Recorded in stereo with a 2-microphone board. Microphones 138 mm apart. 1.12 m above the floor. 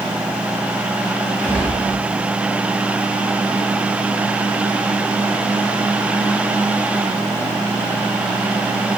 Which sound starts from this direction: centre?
A gunshot, at 1.4 s.